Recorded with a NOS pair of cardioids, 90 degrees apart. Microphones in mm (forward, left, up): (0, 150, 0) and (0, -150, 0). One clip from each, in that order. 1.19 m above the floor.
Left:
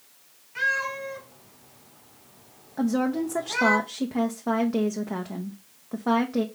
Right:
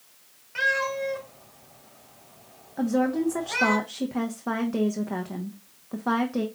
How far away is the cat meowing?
About 3 m.